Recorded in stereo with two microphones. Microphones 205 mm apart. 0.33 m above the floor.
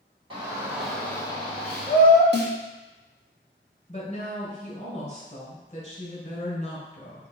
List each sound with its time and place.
0.3 s a shout: 25° right (ahead or behind), 1.5 m; by 2.2 s 45° left (ahead or behind), 2 m
2.3 s a snare drum: 55° right (ahead or behind), 0.9 m
3.9 s a woman speaking: 35° left (ahead or behind), 1.7 m